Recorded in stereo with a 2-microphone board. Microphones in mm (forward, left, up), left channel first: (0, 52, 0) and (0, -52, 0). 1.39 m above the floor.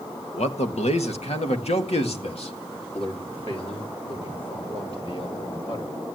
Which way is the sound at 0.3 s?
85° left.